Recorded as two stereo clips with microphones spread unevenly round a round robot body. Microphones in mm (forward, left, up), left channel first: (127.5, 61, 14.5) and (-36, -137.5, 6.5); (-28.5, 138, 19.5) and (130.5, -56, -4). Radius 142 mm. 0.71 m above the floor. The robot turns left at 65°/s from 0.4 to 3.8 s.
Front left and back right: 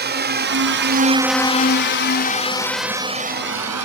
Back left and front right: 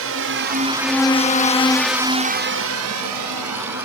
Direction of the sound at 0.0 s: 85° right.